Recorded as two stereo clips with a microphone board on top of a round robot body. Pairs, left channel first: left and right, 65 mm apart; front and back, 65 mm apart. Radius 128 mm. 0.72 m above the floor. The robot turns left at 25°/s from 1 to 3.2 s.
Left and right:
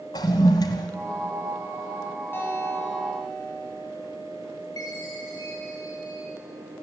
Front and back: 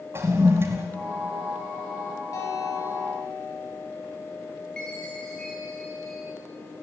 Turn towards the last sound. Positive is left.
turn(degrees=80)